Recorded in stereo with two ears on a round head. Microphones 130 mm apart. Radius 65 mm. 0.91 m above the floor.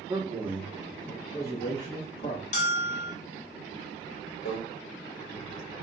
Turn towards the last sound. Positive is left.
turn(degrees=70)  # may be behind; listen again after turning